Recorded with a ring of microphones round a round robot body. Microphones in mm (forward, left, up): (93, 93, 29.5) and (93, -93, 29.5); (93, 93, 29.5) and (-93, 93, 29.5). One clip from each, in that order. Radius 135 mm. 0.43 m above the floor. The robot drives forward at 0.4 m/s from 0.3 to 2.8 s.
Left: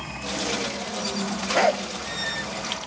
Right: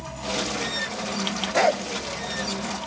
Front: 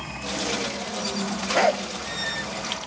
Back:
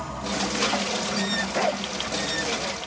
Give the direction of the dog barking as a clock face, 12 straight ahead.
12 o'clock.